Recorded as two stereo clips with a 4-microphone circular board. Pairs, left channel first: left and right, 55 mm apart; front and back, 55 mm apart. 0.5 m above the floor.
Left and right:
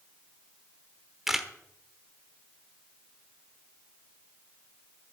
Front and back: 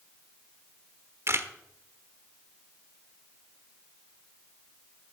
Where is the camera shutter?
175° right, 1.1 m.